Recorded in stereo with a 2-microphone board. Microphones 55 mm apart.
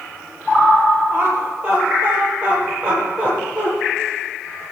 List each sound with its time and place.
1.1 s laughter: 20° right (ahead or behind), 5 m; by 3.7 s 15° right (ahead or behind), 6.5 m